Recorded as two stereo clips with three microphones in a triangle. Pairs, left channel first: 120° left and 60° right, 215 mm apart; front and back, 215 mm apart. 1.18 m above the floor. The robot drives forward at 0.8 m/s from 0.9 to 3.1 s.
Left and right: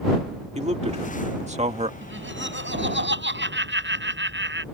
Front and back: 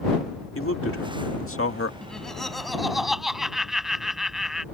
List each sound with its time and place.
0.6 s a man speaking: straight ahead
2.0 s laughter: 85° right; by 4.7 s 90° right